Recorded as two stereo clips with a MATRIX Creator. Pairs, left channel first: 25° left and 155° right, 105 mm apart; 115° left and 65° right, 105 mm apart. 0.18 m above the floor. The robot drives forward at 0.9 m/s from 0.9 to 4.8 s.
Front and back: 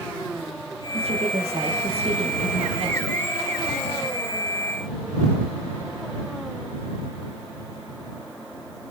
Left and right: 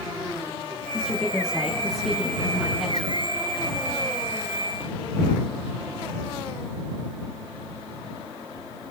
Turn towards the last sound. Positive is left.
turn(degrees=-165)